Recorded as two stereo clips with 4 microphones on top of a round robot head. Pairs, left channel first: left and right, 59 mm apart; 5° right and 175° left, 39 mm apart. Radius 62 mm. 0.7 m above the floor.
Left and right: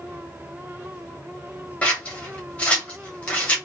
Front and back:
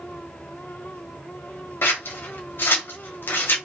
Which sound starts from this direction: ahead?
Scissors, at 1.8 s.